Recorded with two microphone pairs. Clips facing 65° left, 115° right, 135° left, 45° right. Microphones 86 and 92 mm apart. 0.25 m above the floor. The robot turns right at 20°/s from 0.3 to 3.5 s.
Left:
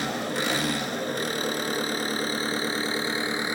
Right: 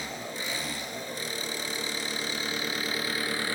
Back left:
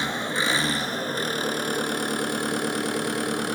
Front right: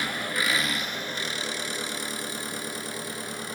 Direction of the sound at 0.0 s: 70° left.